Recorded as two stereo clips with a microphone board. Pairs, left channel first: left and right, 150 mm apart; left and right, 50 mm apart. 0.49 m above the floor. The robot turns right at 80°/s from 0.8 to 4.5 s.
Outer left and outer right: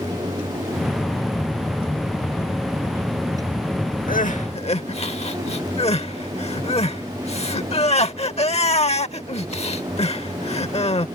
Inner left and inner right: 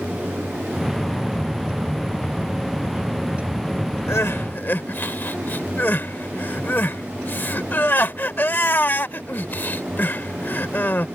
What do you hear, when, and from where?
4.1 s crying: 70° left (ahead or behind); by 11.1 s 45° left (ahead or behind)